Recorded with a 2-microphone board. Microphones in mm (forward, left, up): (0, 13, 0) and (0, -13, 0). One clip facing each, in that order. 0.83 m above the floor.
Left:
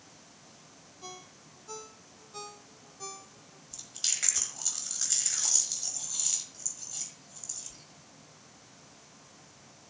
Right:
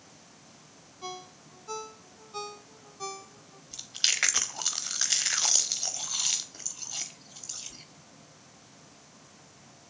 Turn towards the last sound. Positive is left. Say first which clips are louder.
# right 7 dB
turn(degrees=-45)  # may be behind; listen again after turning